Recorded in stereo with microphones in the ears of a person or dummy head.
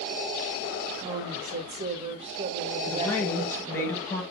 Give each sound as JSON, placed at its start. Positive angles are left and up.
{"t": 1.0, "sound": "a woman speaking", "side_deg": -35, "distance_m": 1.2}
{"t": 2.9, "sound": "a woman speaking", "side_deg": 15, "distance_m": 3.0}